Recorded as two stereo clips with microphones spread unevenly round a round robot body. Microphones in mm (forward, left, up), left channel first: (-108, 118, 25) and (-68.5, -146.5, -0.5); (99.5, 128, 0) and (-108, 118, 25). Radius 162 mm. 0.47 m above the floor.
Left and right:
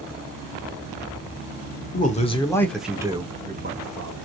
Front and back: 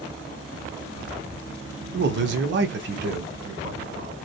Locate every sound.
1.9 s a man speaking: 155° left, 1.0 m; by 4.2 s 110° right, 1.2 m